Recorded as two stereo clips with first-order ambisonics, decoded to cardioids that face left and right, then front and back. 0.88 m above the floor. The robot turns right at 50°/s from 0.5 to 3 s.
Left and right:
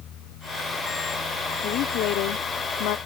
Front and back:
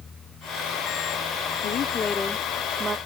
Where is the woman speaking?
45° left; by 3.0 s 110° left.